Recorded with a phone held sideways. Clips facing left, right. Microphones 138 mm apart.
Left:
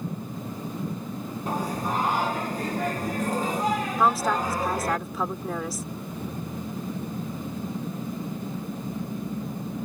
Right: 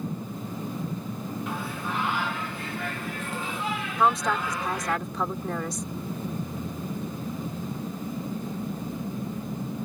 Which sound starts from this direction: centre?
A woman speaking, at 4.0 s.